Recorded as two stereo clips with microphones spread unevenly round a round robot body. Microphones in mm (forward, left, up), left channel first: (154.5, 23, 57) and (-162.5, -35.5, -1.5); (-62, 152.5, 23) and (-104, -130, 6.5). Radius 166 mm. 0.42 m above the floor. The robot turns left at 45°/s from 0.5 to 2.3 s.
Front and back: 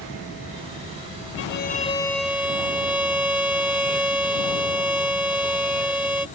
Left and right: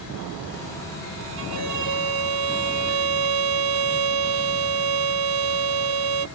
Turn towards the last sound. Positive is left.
turn(degrees=-85)